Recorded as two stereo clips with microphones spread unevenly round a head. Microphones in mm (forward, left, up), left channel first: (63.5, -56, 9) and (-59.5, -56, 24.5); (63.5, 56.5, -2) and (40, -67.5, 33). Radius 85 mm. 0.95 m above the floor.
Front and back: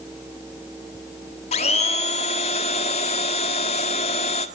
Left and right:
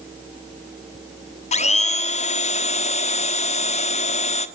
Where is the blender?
50° left, 1.5 m.